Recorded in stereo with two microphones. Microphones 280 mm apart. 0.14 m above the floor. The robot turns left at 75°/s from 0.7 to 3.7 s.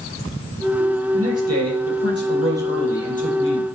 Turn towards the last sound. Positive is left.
turn(degrees=110)